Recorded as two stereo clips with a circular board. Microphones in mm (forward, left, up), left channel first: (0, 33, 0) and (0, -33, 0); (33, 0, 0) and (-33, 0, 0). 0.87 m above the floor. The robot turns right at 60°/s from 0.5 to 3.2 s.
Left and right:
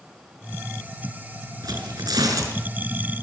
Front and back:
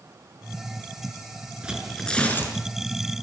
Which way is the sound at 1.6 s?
105° right.